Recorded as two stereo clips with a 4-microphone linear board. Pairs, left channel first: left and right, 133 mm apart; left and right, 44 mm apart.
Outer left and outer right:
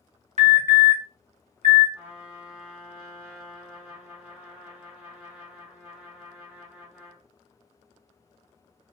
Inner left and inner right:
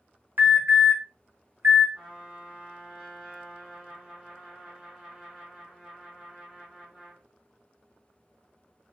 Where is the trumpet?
10° right (ahead or behind), 1.3 m.